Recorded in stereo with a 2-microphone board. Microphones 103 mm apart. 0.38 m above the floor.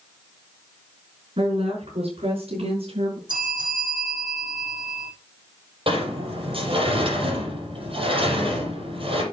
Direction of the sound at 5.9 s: 60° right (ahead or behind).